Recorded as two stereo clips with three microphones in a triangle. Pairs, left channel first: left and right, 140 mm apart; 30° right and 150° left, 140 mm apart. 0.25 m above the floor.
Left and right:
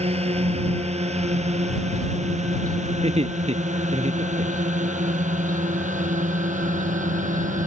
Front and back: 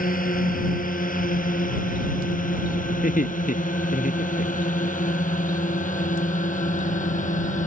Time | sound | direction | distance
0.0 | a drone | 45° right | ?
3.0 | laughter | 45° right | ?